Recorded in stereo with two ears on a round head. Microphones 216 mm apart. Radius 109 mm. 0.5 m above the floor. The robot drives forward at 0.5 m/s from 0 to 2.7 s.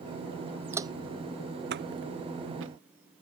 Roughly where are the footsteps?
Centre.